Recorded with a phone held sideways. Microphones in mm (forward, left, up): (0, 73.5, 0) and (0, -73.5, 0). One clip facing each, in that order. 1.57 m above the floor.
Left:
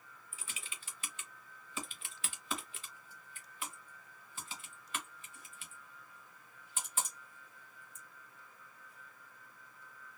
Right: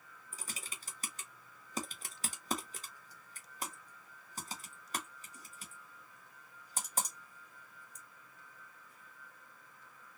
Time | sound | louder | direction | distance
0.3 | typing on a keyboard | right 3 dB | 40° right (ahead or behind) | 0.9 m